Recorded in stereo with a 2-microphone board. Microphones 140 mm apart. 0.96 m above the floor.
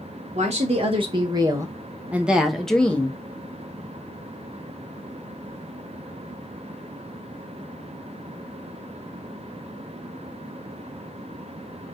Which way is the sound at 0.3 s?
55° right (ahead or behind).